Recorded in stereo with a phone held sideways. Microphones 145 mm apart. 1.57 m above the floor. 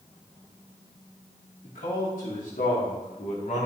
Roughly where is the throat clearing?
I don't hear throat clearing.